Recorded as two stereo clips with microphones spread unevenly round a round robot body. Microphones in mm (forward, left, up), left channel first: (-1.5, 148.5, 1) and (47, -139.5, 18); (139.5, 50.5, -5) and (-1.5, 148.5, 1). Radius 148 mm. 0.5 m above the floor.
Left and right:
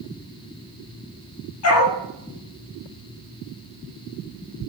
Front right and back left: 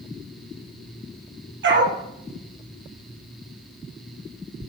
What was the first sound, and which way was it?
A dog barking, 145° left.